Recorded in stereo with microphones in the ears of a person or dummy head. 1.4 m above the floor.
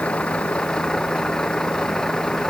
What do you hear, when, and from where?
0.0 s a vehicle: 5° left (ahead or behind); by 2.5 s centre (ahead or behind)